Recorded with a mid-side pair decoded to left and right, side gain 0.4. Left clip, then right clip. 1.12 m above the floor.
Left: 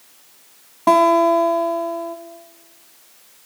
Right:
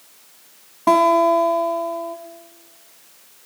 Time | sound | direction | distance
0.9 | a guitar | 20° left | 1.1 m